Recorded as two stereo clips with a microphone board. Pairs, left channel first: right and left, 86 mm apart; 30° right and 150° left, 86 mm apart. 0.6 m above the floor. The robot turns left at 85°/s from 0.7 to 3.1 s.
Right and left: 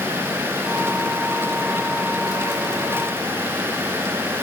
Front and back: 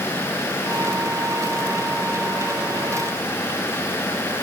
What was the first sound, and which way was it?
Only background noise.